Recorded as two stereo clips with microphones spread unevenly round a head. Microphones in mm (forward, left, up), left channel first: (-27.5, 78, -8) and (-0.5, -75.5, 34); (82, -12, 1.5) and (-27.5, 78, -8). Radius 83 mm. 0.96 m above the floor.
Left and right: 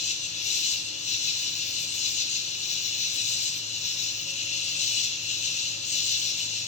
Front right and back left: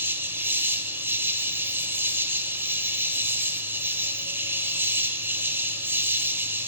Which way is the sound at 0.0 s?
80° left.